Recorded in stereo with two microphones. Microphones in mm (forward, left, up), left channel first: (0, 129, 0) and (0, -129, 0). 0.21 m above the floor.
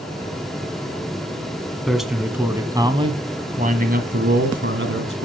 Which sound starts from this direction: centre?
A man speaking, at 1.9 s.